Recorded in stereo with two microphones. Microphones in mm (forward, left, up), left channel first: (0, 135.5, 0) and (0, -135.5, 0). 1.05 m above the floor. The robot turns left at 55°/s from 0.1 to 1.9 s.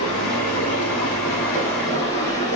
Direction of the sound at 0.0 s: 115° left.